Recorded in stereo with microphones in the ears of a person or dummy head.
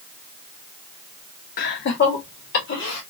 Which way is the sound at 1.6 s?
40° left (ahead or behind).